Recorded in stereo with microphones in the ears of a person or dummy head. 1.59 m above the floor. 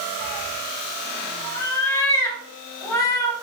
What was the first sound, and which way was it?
A cat meowing, 15° left (ahead or behind).